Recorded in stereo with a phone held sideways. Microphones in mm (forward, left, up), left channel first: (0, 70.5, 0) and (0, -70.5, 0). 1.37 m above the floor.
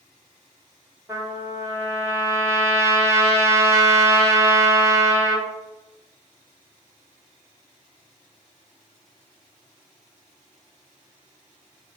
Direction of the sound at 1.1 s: 20° right (ahead or behind).